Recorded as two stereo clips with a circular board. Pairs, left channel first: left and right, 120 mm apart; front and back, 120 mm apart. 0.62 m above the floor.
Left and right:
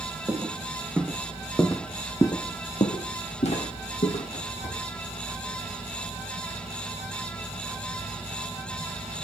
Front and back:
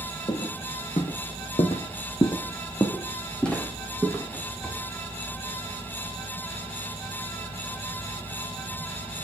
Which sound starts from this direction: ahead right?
Footsteps, at 0.3 s.